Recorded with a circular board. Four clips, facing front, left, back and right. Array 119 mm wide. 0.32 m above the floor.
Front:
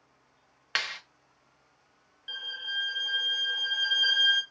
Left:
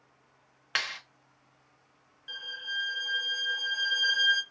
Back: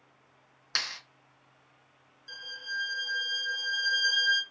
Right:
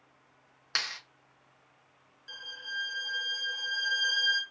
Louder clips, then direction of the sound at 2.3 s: Left 2 dB, even; 20° left.